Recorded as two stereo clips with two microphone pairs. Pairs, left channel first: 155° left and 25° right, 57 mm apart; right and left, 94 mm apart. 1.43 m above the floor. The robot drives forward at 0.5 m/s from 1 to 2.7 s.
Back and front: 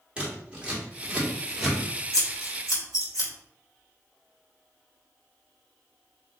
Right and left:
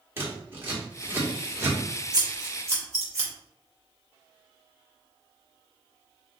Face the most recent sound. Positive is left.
turn(degrees=145)